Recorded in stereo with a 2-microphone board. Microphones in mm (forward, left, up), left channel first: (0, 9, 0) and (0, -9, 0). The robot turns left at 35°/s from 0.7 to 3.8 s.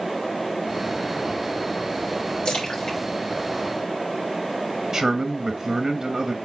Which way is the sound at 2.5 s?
45° left (ahead or behind).